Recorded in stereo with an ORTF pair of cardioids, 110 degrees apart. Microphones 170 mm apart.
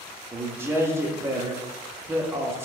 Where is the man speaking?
15° right, 0.7 m.